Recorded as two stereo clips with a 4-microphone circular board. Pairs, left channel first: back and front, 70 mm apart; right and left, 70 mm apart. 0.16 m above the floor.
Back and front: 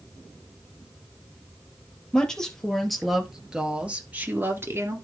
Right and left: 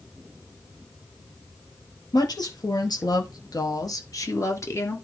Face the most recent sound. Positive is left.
turn(degrees=-40)